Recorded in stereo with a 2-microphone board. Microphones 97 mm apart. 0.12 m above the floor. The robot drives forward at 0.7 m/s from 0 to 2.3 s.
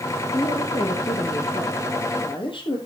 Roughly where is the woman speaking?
Left.